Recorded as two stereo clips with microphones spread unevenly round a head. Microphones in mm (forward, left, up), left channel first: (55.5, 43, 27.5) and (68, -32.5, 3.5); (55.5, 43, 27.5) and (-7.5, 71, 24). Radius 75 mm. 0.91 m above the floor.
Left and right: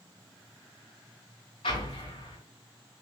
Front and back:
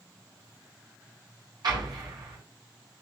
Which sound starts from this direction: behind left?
An explosion, at 1.6 s.